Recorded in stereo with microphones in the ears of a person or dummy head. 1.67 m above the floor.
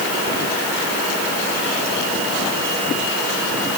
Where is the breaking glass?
I don't hear breaking glass.